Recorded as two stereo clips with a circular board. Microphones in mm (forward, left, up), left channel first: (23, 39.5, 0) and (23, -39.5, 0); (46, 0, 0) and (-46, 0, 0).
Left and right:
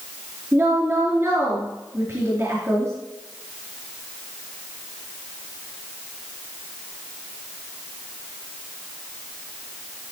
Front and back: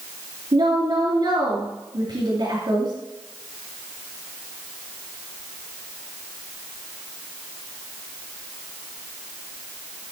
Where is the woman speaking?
160° right, 4 m.